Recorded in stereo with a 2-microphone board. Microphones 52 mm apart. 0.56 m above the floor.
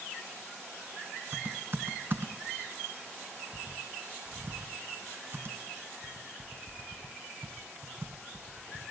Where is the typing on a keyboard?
45° right (ahead or behind), 1.6 m.